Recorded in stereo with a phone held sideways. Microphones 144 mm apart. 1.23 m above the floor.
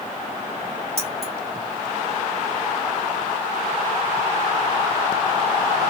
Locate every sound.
1.0 s keys jangling: 45° right (ahead or behind), 2.5 m